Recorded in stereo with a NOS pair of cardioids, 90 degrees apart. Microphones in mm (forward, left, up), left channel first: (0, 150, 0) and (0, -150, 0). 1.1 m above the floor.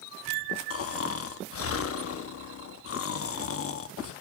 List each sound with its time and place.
0.7 s snoring: 50° left, 1.1 m